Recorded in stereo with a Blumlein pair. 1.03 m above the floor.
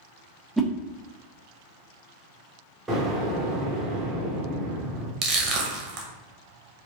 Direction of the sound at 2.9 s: 5° right.